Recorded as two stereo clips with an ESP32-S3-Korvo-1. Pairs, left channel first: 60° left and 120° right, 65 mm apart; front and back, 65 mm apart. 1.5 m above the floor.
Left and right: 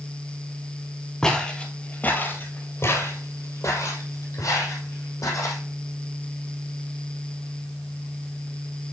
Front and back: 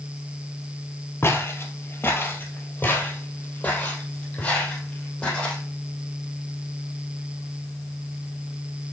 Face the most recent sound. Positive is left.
turn(degrees=75)